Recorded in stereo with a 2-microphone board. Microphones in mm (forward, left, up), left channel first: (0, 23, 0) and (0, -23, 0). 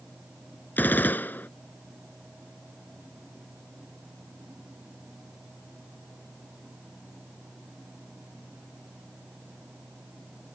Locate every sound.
0.8 s a gunshot: 40° left (ahead or behind)